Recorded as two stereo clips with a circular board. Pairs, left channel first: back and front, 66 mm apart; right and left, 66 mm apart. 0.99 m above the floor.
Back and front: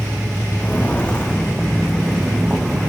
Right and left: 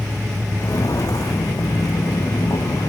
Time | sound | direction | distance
0.6 | footsteps | 115° right | 3.5 m